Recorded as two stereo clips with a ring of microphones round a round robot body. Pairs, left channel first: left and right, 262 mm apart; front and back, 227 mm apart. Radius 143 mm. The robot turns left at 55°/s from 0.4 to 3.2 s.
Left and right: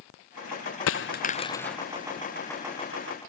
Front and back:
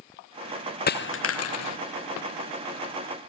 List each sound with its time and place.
0.9 s a dropped coin: 50° left; by 1.8 s straight ahead